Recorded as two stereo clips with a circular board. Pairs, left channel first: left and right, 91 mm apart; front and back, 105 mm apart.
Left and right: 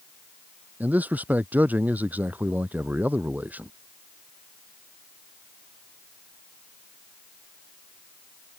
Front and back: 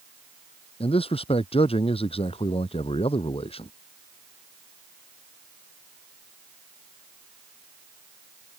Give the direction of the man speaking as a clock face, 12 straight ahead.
1 o'clock.